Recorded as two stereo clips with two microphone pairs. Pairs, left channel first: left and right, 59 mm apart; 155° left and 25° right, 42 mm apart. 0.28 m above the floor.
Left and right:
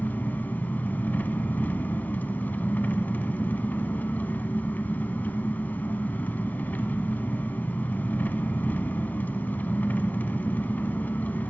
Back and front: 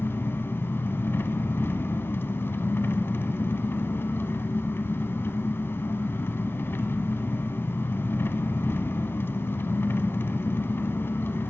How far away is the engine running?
About 1.1 m.